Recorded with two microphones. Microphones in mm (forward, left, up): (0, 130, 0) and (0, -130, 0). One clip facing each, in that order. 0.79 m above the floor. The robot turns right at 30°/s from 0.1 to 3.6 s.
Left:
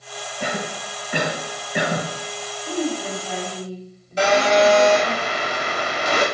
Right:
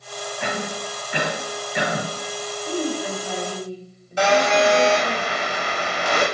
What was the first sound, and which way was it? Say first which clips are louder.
A cough: left 1 dB; 40° left (ahead or behind).